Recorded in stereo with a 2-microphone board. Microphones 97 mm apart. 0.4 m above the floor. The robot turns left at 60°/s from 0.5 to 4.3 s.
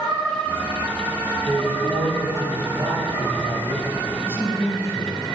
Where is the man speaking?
20° left, 2.5 m; by 5.2 s 150° right, 2.5 m.